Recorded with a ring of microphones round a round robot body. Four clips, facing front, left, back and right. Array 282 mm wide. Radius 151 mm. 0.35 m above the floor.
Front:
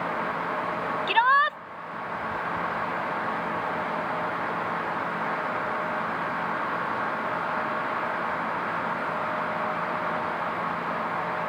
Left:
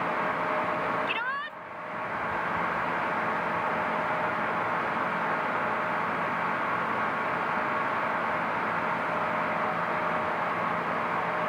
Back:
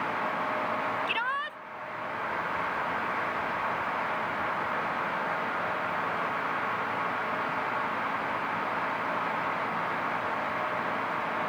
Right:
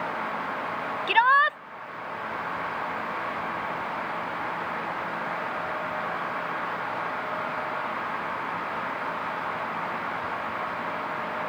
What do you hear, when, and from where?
1.1 s a shout: 55° right